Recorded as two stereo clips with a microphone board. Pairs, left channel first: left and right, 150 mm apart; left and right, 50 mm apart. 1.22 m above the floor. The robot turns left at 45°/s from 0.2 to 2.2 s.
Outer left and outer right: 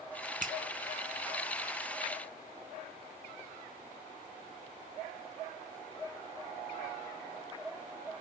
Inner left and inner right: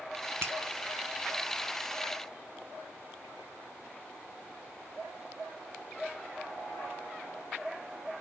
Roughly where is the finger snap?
Right.